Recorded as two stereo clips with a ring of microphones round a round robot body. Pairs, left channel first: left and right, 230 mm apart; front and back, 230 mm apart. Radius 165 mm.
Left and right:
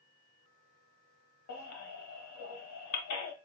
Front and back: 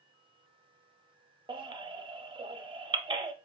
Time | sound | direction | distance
1.5 | a baby crying | 110° left | 0.6 m